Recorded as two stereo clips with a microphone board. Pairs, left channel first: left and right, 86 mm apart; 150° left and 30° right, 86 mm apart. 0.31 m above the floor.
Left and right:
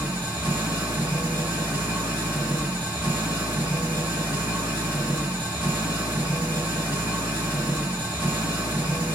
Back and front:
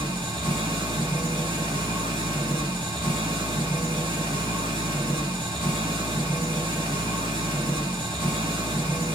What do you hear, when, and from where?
0.0 s an engine running: 20° right, 3 m